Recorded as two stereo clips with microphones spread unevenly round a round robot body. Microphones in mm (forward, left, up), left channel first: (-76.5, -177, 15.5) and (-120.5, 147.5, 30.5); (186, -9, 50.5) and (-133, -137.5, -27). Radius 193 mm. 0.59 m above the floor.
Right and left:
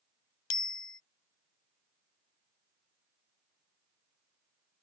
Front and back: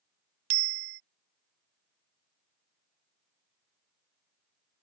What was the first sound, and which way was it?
A bicycle bell, 110° right.